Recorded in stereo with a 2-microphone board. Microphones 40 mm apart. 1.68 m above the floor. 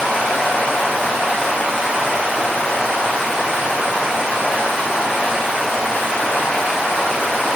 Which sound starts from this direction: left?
Running water, at 0.0 s.